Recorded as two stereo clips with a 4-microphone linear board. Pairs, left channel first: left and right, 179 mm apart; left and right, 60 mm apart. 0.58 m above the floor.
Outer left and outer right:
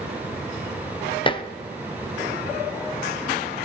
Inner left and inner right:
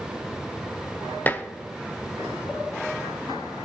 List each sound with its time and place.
1.3 s dishes clattering: 30° left (ahead or behind), 0.6 m